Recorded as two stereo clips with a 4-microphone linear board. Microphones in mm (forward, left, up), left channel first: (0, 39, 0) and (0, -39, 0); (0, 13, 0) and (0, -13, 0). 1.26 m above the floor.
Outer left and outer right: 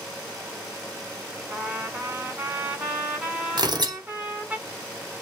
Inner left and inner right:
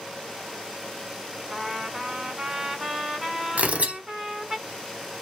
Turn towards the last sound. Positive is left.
turn(degrees=-65)  # may be behind; listen again after turning